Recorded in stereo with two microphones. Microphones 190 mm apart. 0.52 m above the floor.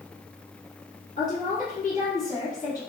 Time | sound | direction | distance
1.2 | a woman speaking | 40° left (ahead or behind) | 1.4 m